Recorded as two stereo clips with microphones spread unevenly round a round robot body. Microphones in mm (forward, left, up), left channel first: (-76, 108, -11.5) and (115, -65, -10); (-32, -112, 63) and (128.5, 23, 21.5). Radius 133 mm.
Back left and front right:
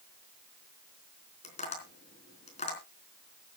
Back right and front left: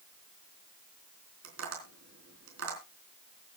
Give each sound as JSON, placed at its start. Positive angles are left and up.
{"t": 1.4, "sound": "tapping", "azimuth_deg": 75, "distance_m": 4.0}